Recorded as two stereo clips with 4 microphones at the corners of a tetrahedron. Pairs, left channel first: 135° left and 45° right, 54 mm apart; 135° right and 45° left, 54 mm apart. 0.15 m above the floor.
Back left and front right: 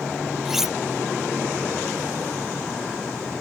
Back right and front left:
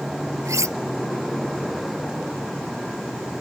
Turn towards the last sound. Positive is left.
turn(degrees=40)